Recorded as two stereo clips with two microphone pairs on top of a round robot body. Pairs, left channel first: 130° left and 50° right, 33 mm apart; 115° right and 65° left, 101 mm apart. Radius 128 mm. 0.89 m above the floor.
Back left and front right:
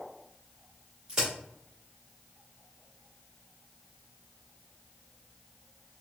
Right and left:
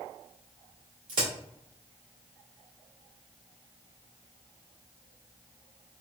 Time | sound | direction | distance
1.1 | a crack | 20° left | 1.4 m